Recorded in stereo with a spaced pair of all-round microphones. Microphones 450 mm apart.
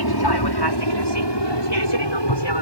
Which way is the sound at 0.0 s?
55° left (ahead or behind).